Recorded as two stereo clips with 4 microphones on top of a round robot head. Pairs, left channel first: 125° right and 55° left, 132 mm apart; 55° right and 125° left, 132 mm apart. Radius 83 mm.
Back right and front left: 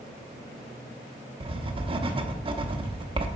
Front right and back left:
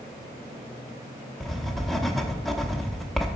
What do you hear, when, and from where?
1.4 s writing: 30° left, 0.9 m